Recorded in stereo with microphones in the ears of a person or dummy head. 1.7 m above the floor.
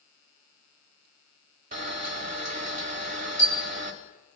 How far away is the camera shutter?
About 1.3 m.